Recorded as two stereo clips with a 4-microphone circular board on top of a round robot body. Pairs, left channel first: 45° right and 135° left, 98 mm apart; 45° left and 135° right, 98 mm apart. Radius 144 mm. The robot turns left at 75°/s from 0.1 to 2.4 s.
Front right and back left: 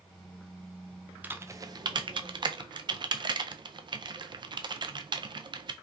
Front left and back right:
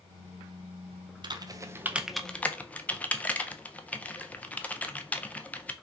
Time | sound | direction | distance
1.2 | typing on a keyboard | 155° right | 0.6 m